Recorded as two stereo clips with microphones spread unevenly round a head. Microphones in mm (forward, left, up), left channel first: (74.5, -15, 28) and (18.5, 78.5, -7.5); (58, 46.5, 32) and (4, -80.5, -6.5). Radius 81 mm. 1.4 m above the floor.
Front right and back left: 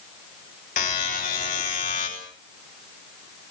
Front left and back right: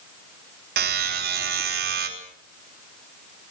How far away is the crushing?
No crushing in this recording.